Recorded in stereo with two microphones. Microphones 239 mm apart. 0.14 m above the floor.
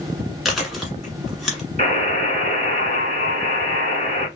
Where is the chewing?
Centre (ahead or behind), 1.2 m.